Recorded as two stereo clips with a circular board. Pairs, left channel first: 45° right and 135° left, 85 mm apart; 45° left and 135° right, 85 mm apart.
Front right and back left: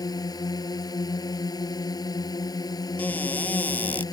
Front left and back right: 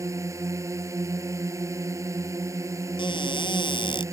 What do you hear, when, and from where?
0.0 s a drone: 85° right
3.0 s a cupboard door: 25° left